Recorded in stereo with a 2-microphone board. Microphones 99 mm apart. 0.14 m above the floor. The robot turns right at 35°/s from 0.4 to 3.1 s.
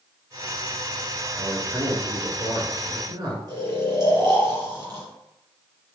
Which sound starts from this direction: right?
Snoring, at 3.5 s.